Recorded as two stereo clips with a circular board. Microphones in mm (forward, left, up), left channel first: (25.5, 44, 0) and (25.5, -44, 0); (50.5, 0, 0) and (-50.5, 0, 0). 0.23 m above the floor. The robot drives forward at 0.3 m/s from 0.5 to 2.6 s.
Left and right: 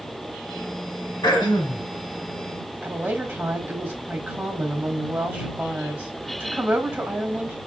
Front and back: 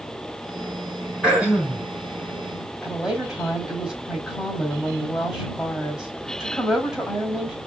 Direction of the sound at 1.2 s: 100° left.